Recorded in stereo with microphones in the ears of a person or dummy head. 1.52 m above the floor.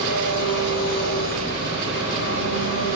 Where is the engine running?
70° left (ahead or behind), 3.5 m.